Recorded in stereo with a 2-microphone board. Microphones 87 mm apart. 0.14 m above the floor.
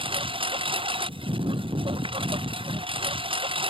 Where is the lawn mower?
80° right.